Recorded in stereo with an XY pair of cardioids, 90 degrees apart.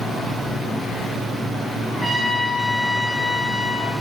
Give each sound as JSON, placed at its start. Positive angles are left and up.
{"t": 1.9, "sound": "a trumpet", "azimuth_deg": -10, "distance_m": 0.7}